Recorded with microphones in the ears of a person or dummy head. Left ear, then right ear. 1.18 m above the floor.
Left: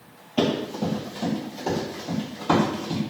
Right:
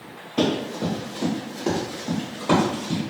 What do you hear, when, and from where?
0.4 s running footsteps: 5° left (ahead or behind), 1.2 m; by 3.0 s 50° right (ahead or behind), 1.8 m